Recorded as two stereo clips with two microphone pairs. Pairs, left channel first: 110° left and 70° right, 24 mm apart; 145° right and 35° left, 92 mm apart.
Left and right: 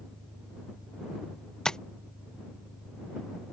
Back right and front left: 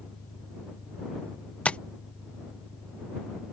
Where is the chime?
I don't hear a chime.